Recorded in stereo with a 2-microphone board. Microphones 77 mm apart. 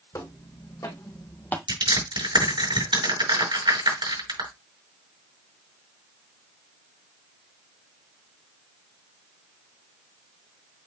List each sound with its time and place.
0.1 s footsteps: 50° left (ahead or behind), 3 m; by 1.6 s 20° left (ahead or behind), 1.1 m
1.7 s crushing: 90° right, 5 m